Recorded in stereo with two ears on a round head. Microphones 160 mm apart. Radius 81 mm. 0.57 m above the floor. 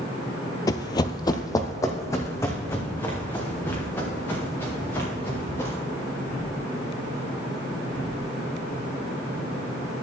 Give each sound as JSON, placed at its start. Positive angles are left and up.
{"t": 0.7, "sound": "running footsteps", "side_deg": 20, "distance_m": 0.5}